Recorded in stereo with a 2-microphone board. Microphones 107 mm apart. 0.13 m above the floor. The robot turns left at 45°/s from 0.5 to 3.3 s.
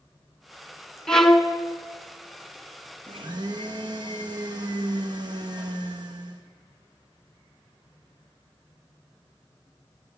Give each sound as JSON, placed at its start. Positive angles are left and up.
{"t": 1.1, "sound": "a violin", "side_deg": 5, "distance_m": 1.0}
{"t": 3.1, "sound": "a blender", "side_deg": -55, "distance_m": 1.5}